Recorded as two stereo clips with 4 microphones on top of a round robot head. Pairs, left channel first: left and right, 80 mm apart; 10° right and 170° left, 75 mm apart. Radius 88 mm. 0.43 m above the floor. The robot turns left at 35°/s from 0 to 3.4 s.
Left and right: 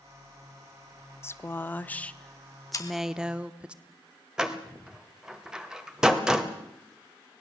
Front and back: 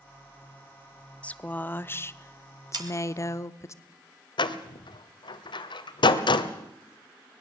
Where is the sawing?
140° left, 2 m; by 2.9 s 135° left, 2 m.